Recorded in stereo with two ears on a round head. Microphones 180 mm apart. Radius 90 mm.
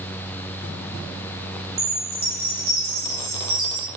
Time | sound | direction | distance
1.8 | a chime | 50° right (ahead or behind) | 7.5 m